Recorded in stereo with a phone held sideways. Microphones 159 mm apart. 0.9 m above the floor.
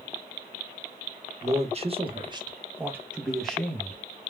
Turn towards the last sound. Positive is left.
turn(degrees=15)  # may be behind; listen again after turning